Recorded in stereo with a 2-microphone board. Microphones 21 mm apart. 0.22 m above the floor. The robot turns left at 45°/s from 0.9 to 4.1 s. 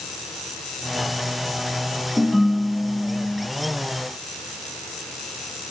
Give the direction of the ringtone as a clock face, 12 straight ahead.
12 o'clock.